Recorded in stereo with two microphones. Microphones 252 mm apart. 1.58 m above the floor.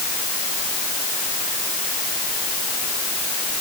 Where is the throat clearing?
I don't hear throat clearing.